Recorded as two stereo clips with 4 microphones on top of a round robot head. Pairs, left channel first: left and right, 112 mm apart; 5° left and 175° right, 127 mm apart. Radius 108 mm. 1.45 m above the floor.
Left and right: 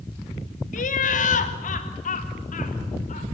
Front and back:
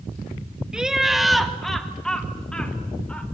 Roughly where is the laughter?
Left.